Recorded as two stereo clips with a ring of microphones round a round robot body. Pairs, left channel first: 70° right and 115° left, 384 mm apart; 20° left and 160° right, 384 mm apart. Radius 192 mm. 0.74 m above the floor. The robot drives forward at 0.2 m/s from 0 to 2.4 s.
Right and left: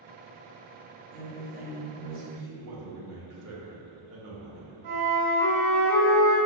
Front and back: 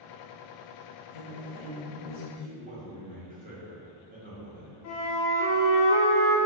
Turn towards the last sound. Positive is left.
turn(degrees=75)